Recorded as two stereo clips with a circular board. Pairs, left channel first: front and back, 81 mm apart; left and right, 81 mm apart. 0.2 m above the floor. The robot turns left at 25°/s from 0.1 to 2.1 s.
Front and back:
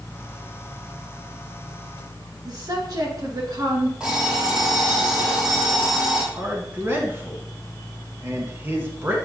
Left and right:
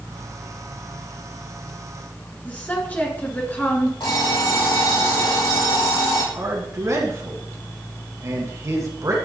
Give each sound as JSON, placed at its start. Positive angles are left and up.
{"t": 2.5, "sound": "a woman speaking", "azimuth_deg": 155, "distance_m": 2.5}
{"t": 4.0, "sound": "an alarm clock", "azimuth_deg": 105, "distance_m": 3.5}
{"t": 6.3, "sound": "a man speaking", "azimuth_deg": -125, "distance_m": 1.9}